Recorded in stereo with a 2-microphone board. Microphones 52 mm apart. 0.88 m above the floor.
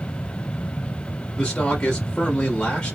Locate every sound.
1.4 s a man speaking: 15° left (ahead or behind), 1.4 m